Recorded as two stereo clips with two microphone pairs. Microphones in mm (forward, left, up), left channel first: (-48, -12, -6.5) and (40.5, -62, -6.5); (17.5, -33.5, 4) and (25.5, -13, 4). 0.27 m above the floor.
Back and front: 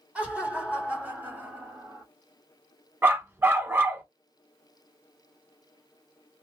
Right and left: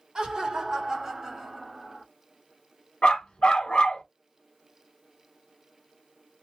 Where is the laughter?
40° left, 1.7 m; by 2.0 s 10° right, 1.2 m.